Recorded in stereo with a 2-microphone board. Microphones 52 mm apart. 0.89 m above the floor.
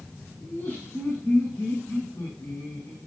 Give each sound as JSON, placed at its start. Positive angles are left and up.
{"t": 0.4, "sound": "laughter", "side_deg": 45, "distance_m": 9.0}